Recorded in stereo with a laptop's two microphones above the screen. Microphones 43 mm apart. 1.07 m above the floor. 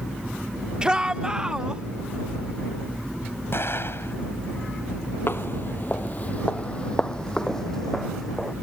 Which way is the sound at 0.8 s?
20° right (ahead or behind).